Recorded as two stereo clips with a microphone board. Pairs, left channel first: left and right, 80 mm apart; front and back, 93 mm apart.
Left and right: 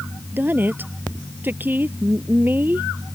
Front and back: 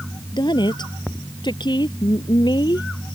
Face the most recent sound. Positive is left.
turn(degrees=-25)